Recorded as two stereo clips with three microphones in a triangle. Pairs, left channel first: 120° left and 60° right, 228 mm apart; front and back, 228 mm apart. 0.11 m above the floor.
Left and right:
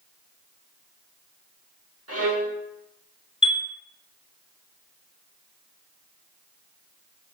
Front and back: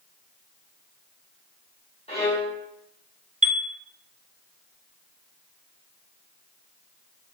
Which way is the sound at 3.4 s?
165° left.